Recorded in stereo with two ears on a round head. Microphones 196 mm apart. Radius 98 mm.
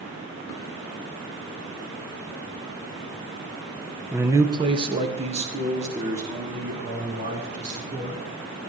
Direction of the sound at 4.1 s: 5° right (ahead or behind).